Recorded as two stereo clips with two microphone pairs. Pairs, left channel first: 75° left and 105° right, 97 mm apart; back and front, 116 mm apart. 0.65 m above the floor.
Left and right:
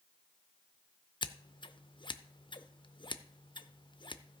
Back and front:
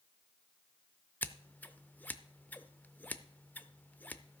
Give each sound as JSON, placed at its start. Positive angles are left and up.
{"t": 1.2, "sound": "scissors", "azimuth_deg": 105, "distance_m": 0.6}